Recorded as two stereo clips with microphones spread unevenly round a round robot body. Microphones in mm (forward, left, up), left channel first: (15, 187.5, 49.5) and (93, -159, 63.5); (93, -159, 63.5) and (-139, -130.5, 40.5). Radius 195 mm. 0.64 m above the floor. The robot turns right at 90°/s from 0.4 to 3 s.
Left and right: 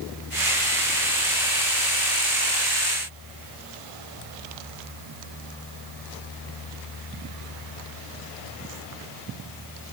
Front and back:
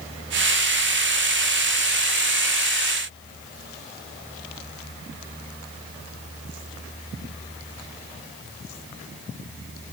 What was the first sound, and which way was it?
Only background noise.